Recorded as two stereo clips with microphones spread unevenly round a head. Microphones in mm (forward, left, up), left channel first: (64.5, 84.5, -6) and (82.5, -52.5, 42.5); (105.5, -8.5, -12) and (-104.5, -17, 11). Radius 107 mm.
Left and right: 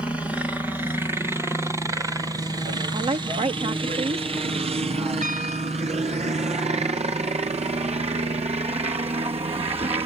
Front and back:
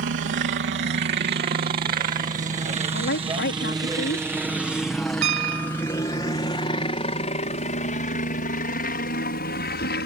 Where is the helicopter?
Straight behind; by 10.1 s 30° right.